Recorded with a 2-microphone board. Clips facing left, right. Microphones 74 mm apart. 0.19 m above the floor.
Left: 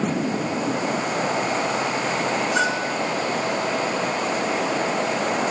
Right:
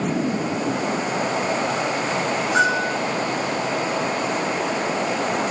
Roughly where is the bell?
Right.